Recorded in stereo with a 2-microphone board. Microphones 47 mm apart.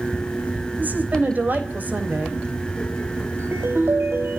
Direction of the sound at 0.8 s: 40° right (ahead or behind).